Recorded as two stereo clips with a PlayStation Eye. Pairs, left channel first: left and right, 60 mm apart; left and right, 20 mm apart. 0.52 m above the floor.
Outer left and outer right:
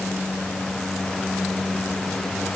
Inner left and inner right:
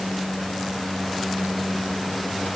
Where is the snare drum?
I don't hear a snare drum.